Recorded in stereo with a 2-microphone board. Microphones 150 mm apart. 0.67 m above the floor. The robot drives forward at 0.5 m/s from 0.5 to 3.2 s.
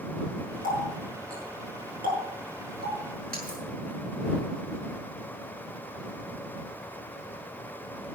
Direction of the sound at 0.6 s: 80° right.